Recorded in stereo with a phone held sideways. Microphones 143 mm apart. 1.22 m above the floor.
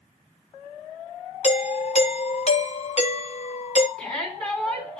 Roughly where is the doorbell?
Left.